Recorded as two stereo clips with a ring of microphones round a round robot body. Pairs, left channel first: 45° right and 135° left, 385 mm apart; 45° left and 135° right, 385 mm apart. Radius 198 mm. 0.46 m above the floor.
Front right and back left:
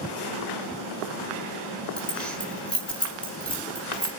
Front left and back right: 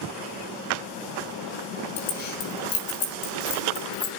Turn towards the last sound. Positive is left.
turn(degrees=45)